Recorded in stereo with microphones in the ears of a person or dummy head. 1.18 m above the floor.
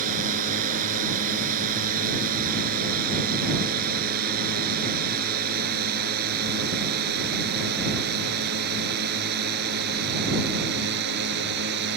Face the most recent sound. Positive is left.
turn(degrees=-65)  # may be behind; listen again after turning